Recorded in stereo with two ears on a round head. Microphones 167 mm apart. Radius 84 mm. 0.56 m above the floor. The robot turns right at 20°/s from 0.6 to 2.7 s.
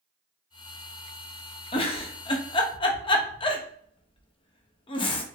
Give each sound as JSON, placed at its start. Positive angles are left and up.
{"t": 1.7, "sound": "a giggle", "side_deg": 25, "distance_m": 0.5}